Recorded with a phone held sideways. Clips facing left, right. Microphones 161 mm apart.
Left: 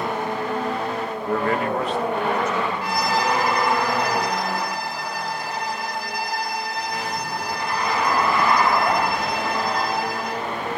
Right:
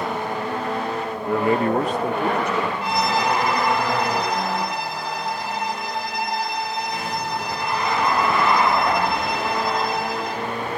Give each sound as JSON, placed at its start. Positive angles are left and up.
{"t": 1.2, "sound": "a man speaking", "side_deg": 5, "distance_m": 0.6}
{"t": 2.8, "sound": "a violin", "side_deg": -25, "distance_m": 2.0}